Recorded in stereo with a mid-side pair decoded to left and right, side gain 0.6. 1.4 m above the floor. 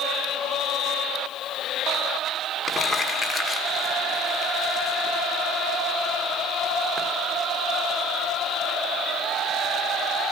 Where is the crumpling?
Straight ahead, 1.5 m.